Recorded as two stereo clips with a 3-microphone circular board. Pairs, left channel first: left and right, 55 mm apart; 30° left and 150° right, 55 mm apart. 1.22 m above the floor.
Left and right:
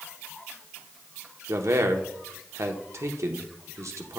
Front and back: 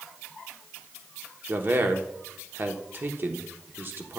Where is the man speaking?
105° right, 0.9 m.